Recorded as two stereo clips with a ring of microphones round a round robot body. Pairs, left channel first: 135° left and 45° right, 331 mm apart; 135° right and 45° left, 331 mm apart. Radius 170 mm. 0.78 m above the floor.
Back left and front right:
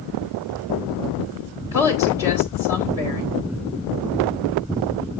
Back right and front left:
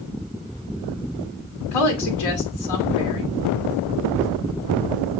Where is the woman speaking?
125° right, 2 m.